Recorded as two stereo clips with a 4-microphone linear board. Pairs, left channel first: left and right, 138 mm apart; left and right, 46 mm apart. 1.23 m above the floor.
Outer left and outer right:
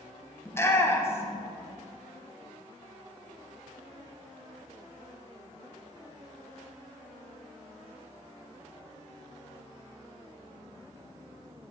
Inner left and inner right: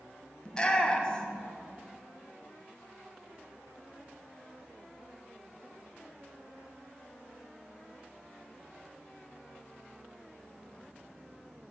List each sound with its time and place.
0.5 s a shout: 20° left (ahead or behind), 0.7 m